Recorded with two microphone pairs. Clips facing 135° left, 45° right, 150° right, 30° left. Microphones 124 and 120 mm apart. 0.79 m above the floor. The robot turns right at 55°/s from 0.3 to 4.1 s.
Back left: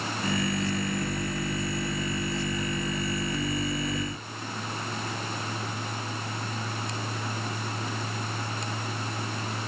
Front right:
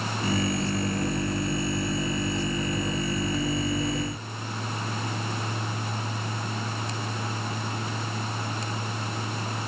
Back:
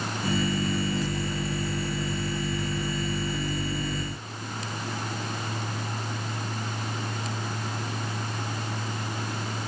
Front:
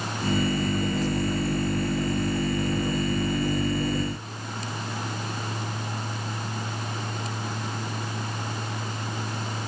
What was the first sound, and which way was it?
Only background noise.